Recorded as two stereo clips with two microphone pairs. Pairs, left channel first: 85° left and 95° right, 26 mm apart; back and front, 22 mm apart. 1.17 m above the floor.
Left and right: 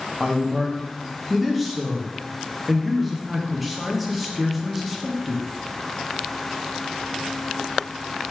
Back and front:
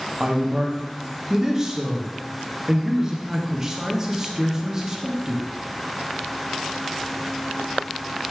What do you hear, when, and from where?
0.2 s a man speaking: 5° right, 0.7 m